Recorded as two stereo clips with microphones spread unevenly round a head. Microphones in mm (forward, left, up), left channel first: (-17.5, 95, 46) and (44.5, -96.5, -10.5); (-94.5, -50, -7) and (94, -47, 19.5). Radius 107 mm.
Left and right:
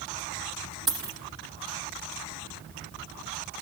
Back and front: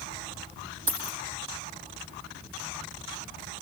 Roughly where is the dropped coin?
Ahead left.